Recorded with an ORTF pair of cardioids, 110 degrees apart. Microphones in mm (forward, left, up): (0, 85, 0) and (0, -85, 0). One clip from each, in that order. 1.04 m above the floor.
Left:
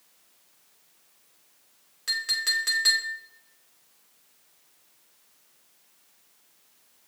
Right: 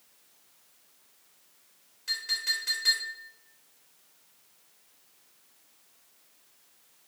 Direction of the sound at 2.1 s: 60° left.